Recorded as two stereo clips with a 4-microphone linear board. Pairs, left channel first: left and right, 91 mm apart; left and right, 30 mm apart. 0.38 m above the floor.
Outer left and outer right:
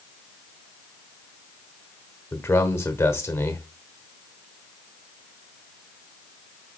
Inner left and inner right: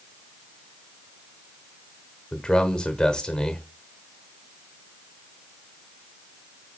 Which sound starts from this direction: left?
A man speaking, at 2.3 s.